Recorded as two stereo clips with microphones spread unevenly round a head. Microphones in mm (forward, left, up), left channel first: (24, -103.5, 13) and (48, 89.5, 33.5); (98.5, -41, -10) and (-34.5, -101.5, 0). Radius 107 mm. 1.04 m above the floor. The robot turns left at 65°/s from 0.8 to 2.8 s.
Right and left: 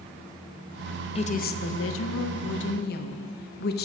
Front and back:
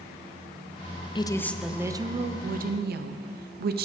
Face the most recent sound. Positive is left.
turn(degrees=-140)